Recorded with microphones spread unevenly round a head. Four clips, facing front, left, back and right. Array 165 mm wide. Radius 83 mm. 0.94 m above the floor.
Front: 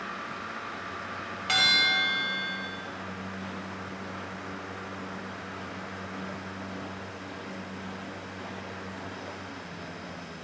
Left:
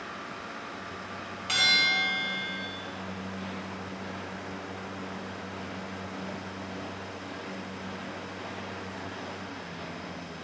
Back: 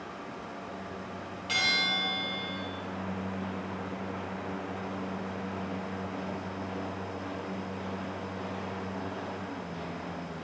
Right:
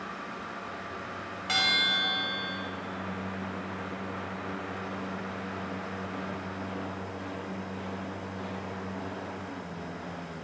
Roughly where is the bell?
Ahead right.